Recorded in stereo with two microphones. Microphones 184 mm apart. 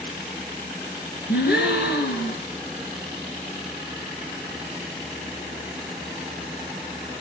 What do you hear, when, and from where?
1.3 s a gasp: 65° left (ahead or behind), 2.5 m